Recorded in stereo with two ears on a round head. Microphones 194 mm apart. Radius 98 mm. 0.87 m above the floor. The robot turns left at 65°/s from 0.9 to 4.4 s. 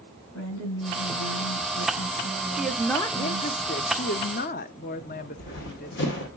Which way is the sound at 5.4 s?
55° left (ahead or behind).